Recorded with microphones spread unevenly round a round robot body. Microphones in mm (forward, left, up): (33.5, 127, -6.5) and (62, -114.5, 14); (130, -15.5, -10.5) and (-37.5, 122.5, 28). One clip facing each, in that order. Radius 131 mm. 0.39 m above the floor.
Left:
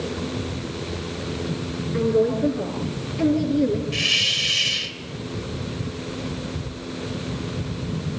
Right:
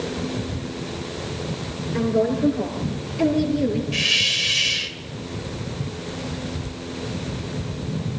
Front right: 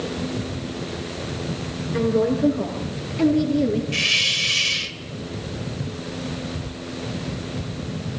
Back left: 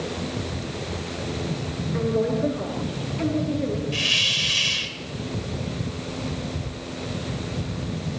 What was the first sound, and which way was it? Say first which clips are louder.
A woman speaking: left 1 dB, front right 4 dB; 25° left.